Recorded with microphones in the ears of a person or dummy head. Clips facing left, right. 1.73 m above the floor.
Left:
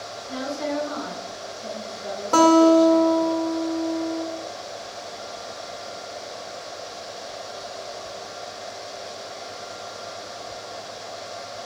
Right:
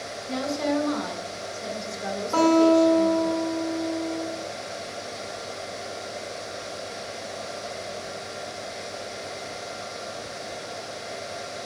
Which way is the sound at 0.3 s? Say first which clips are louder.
Right 2 dB; 60° right (ahead or behind).